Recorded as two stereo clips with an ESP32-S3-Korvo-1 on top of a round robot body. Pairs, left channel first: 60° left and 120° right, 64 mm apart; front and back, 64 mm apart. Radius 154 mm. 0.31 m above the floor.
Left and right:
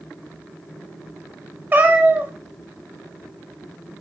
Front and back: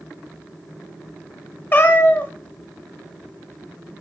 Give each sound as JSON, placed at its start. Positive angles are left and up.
{"t": 1.7, "sound": "a cat meowing", "azimuth_deg": -55, "distance_m": 0.8}